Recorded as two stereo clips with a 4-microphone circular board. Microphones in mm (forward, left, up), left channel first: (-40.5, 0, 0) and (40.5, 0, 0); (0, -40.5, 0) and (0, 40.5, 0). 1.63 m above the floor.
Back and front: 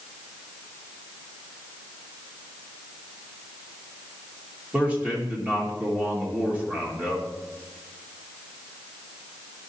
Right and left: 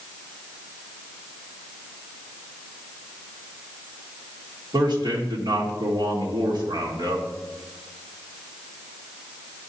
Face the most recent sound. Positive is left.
turn(degrees=75)